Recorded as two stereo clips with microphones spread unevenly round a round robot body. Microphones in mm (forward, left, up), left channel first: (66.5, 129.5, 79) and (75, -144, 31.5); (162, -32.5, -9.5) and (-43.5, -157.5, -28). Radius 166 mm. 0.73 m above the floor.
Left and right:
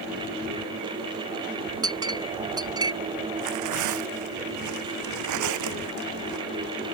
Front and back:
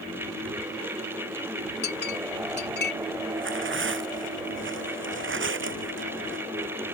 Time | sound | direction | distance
1.8 | a clink | 10° right | ?
3.4 | tearing paper | 115° right | ?